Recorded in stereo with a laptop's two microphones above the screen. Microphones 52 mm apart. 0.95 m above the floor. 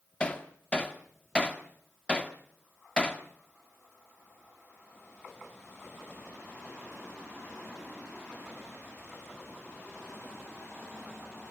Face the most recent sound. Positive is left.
turn(degrees=20)  # may be behind; listen again after turning